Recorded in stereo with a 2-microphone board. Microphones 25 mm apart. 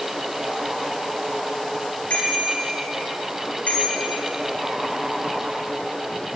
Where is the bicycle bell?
65° left (ahead or behind), 7 m; by 4.2 s 75° left (ahead or behind), 7 m.